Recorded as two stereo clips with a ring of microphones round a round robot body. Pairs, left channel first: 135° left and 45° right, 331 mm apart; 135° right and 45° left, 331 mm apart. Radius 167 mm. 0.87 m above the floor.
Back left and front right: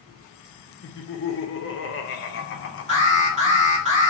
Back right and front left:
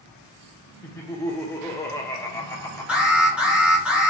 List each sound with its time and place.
0.8 s laughter: 150° left, 0.8 m
2.9 s an alarm: 35° right, 1.7 m